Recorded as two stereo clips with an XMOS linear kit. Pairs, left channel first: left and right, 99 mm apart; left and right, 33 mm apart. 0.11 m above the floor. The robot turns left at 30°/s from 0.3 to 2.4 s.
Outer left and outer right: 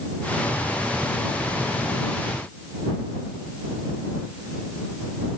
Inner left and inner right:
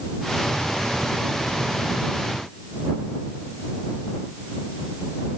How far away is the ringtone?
No ringtone in this recording.